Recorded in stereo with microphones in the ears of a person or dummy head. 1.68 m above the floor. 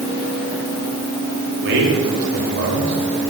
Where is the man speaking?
70° right (ahead or behind), 4.5 m.